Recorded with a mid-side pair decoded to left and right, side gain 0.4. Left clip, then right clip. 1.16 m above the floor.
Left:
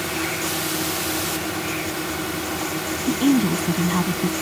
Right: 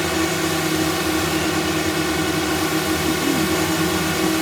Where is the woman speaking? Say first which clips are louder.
Right 1 dB; 60° left.